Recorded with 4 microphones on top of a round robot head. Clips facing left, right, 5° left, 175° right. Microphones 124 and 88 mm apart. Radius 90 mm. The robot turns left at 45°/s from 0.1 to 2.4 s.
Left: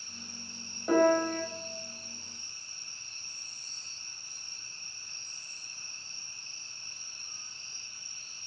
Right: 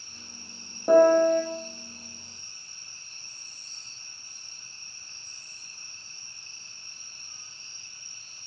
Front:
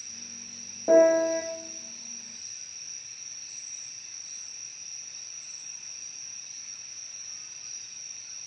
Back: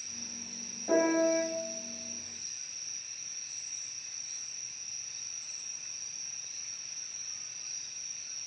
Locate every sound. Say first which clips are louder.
0.9 s a piano: right 7 dB, front 7 dB; 35° right, 0.9 m; by 1.4 s 60° right, 0.9 m